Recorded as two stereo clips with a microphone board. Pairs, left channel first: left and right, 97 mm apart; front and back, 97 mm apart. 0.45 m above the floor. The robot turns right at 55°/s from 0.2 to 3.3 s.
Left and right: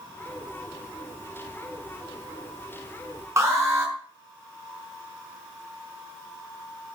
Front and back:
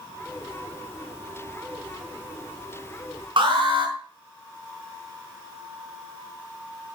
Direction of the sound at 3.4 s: 150° right.